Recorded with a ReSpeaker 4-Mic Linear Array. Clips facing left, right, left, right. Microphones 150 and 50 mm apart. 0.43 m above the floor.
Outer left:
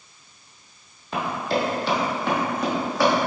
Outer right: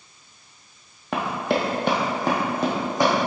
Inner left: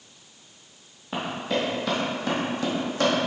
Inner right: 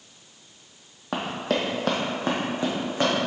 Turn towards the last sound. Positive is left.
turn(degrees=-15)  # may be behind; listen again after turning